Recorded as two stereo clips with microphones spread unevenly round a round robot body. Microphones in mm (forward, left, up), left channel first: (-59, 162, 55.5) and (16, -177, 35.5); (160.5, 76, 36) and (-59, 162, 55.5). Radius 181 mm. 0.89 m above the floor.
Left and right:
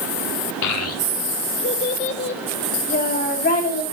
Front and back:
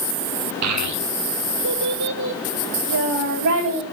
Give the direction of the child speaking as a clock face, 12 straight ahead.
7 o'clock.